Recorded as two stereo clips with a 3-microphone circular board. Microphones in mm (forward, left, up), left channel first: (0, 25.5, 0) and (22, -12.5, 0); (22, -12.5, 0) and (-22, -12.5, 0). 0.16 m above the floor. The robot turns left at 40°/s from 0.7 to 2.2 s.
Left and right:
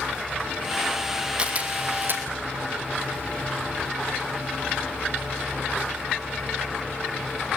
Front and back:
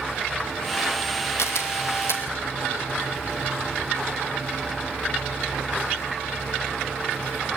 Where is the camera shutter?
5° left, 3 m; by 2.2 s 25° right, 3 m.